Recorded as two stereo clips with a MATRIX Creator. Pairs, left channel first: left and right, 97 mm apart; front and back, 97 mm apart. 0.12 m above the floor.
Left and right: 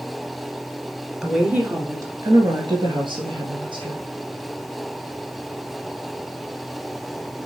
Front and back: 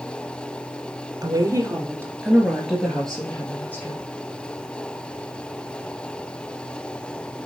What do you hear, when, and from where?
1.2 s a woman speaking: 170° right, 1.4 m; by 4.0 s 70° right, 2.5 m